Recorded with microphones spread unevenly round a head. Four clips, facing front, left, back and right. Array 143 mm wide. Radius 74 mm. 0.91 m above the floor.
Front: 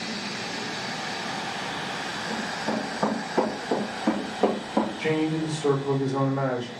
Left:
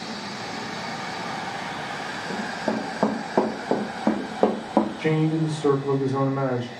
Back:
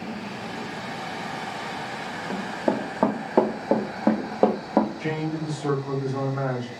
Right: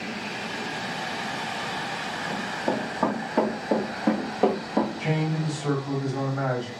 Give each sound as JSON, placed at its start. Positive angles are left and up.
{"t": 2.3, "sound": "running footsteps", "azimuth_deg": 160, "distance_m": 3.0}
{"t": 5.0, "sound": "a man speaking", "azimuth_deg": 95, "distance_m": 1.9}